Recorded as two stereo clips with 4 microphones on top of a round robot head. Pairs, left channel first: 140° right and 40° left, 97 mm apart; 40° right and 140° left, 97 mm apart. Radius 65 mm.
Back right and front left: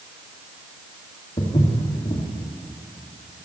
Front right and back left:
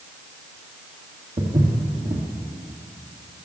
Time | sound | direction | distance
1.4 | footsteps | 170° left | 2 m